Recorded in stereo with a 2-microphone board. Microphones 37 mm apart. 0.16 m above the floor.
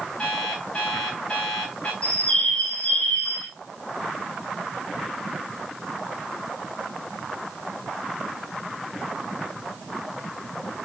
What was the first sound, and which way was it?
An alarm clock, 30° left (ahead or behind).